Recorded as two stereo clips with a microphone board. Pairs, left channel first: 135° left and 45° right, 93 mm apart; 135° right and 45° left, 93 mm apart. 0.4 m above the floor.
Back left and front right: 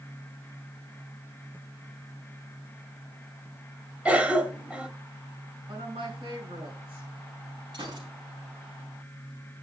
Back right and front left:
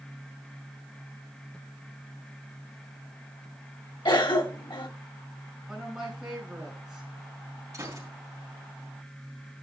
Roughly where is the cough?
Behind right.